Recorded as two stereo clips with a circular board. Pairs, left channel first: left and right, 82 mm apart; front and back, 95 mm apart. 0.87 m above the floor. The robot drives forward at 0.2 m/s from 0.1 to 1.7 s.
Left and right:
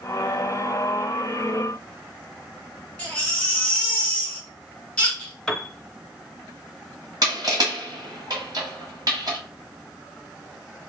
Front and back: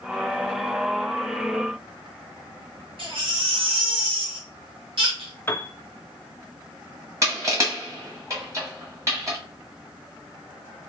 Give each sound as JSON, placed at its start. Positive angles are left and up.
{"t": 3.0, "sound": "a baby crying", "azimuth_deg": 165, "distance_m": 1.3}
{"t": 5.5, "sound": "a piano", "azimuth_deg": 15, "distance_m": 0.5}
{"t": 7.2, "sound": "crushing", "azimuth_deg": -125, "distance_m": 1.5}